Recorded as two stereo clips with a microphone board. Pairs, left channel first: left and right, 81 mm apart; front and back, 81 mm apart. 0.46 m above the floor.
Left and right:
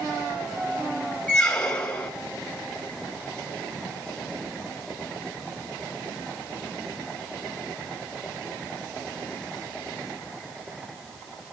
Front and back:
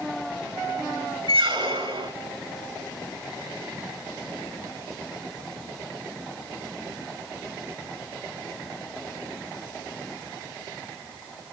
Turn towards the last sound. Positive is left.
turn(degrees=170)